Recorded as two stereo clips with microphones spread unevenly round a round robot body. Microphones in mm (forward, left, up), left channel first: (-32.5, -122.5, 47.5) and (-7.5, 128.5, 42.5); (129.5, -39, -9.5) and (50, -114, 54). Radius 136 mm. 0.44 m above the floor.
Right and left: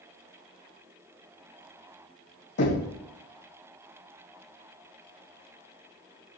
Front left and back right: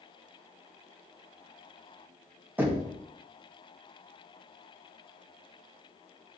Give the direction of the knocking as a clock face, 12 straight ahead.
2 o'clock.